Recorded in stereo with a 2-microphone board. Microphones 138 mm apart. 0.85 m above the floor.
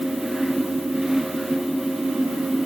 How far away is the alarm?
No alarm in this recording.